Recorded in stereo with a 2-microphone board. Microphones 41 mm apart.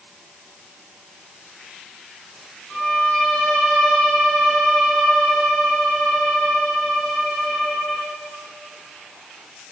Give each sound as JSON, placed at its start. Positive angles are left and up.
{"t": 2.7, "sound": "a violin", "side_deg": 20, "distance_m": 6.0}